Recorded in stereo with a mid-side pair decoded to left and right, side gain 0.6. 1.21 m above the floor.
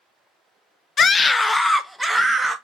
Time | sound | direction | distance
1.0 | a scream | 40° left | 0.5 m